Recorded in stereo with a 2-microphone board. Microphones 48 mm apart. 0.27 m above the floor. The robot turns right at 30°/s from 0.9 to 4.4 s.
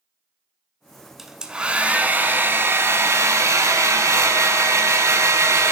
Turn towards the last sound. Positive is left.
turn(degrees=-75)